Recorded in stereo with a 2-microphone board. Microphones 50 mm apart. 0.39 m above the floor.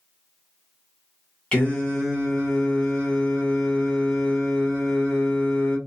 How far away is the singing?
About 1.3 m.